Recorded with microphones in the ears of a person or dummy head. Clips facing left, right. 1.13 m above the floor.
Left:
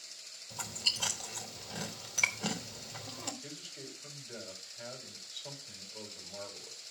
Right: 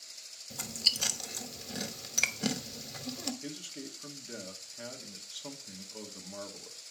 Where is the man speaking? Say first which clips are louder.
Right 6 dB; 80° right, 1.9 m.